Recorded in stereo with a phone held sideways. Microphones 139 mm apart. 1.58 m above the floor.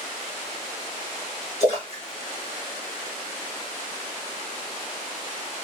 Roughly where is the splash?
Left.